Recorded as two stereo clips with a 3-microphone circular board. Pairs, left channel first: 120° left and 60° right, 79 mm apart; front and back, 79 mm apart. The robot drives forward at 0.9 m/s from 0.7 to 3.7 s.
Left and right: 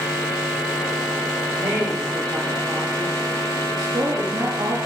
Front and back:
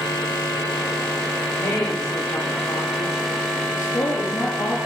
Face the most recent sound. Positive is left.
turn(degrees=-35)